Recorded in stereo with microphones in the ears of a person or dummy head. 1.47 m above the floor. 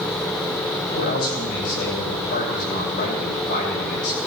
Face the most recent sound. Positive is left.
turn(degrees=55)  # may be behind; listen again after turning